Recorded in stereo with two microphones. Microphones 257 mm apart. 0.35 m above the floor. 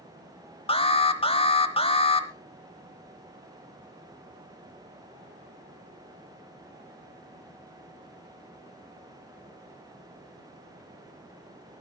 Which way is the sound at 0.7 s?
20° left (ahead or behind).